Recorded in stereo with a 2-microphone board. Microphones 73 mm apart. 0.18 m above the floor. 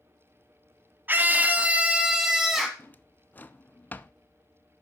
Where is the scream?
25° right (ahead or behind), 1.0 m; by 2.7 s centre (ahead or behind), 1.1 m.